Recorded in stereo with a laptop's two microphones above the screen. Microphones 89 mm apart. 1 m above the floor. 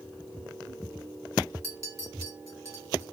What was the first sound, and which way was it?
A clink, 35° right (ahead or behind).